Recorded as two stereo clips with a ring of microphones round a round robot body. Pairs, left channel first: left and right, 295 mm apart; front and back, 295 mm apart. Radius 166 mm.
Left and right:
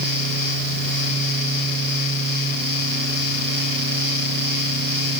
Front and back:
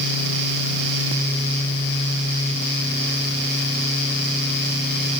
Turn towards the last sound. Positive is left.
No sound to turn to.